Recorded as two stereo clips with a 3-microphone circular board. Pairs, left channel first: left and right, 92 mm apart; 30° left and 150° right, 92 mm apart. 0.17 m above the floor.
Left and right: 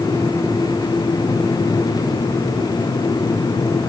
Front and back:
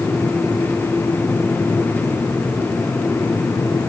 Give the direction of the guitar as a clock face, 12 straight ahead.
I don't hear a guitar.